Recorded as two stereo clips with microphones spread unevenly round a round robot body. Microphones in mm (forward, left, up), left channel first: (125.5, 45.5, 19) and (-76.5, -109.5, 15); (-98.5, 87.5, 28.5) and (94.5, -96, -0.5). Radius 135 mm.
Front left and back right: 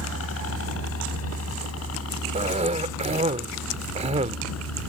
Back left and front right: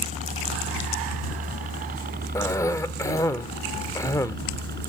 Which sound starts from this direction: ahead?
A helicopter, at 0.0 s.